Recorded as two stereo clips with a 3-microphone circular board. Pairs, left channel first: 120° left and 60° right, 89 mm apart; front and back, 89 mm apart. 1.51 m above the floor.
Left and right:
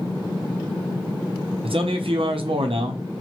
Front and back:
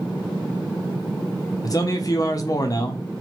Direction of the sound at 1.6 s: 50° right.